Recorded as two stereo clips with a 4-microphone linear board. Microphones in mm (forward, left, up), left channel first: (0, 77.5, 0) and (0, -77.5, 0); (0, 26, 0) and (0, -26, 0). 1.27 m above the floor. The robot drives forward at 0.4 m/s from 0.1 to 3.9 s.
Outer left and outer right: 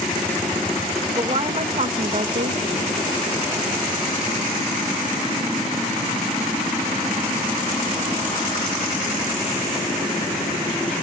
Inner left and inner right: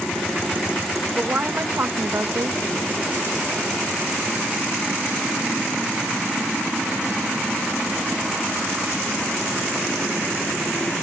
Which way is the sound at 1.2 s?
40° right (ahead or behind).